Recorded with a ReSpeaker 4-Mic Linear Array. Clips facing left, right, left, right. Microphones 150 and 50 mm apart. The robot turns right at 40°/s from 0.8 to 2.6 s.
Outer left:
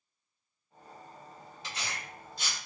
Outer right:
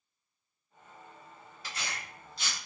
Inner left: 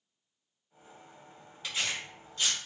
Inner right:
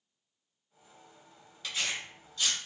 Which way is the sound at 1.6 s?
25° left (ahead or behind).